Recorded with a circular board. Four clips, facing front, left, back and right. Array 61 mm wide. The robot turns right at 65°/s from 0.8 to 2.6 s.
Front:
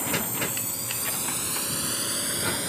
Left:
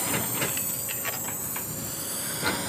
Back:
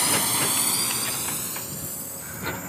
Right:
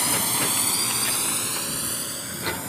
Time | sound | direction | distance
0.0 | a drone | 150° right | ?